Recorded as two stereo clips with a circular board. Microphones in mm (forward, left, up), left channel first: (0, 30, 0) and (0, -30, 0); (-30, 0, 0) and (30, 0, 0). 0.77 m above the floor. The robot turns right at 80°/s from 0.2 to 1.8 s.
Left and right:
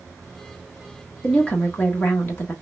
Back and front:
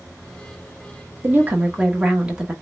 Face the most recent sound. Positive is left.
turn(degrees=65)